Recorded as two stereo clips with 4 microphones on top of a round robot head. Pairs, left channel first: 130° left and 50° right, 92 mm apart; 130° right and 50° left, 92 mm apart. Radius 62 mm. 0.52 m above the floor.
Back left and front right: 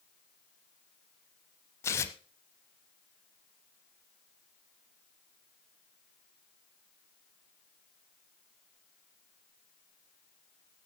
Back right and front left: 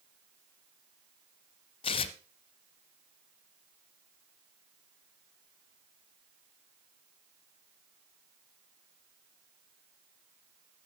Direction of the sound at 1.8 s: 165° right.